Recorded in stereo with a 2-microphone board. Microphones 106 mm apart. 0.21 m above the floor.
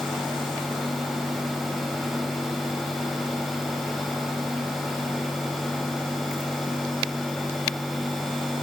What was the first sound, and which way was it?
Only background noise.